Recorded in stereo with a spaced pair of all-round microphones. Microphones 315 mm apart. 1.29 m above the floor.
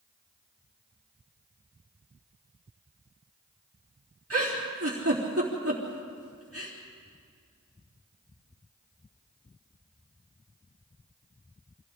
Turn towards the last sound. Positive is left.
turn(degrees=-50)  # may be behind; listen again after turning